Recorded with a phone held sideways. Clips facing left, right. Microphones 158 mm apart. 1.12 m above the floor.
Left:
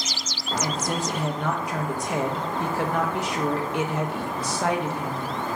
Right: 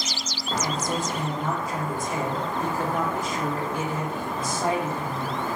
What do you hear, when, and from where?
0.6 s a woman speaking: 75° left (ahead or behind), 1.0 m